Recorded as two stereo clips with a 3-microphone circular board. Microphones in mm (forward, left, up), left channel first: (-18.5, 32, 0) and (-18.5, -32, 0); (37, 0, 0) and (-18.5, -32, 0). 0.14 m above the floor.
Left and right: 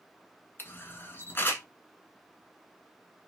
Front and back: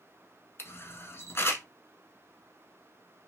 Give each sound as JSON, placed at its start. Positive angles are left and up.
{"t": 0.6, "sound": "a camera shutter", "azimuth_deg": 55, "distance_m": 0.8}